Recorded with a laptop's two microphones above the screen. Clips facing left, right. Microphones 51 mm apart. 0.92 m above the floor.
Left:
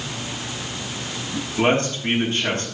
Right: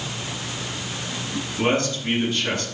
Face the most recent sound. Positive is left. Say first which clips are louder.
# left 3 dB
turn(degrees=55)  # may be behind; listen again after turning